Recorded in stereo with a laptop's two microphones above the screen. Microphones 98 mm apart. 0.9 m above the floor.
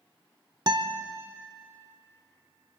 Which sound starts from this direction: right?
A guitar, at 0.7 s.